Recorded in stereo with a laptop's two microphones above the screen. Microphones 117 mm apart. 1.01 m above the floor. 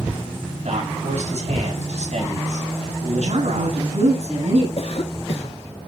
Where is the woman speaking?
70° right (ahead or behind), 9.5 m.